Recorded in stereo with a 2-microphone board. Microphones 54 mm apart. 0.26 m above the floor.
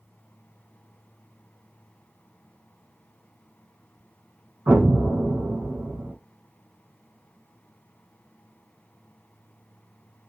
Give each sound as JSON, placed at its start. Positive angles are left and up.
{"t": 4.7, "sound": "an explosion", "side_deg": -35, "distance_m": 0.9}